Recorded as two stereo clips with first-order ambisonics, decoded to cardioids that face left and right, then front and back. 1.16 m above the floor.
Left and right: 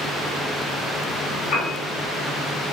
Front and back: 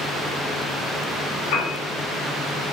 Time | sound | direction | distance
1.5 | a piano | 20° left | 2 m